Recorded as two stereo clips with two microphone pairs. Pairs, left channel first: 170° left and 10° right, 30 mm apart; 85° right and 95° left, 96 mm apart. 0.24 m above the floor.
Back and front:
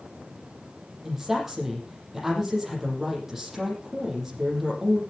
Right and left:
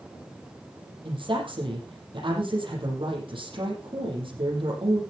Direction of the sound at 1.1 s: 70° left.